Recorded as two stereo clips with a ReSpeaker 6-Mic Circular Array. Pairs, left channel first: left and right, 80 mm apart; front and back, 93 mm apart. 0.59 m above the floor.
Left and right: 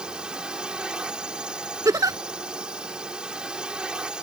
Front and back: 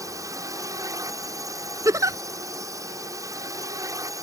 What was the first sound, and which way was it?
A drone, 165° right.